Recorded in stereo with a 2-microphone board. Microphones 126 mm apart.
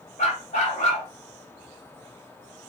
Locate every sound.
0.2 s a dog barking: 70° left (ahead or behind), 1.1 m